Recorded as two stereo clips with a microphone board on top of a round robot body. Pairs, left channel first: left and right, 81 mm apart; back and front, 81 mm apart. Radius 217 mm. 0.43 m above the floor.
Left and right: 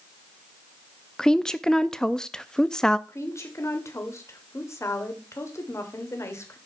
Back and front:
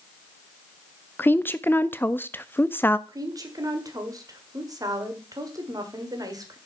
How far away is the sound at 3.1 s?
About 2 m.